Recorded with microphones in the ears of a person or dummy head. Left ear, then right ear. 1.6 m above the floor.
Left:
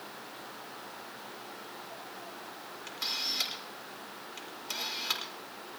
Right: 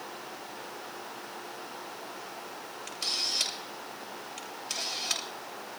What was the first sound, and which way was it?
A camera shutter, 80° left.